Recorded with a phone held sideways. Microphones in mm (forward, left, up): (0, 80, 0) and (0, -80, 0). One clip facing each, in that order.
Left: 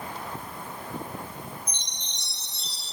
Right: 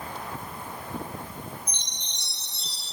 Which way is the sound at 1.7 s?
45° left (ahead or behind).